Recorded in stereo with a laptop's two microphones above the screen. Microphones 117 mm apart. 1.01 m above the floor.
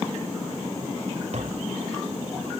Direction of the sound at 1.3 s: 65° right (ahead or behind).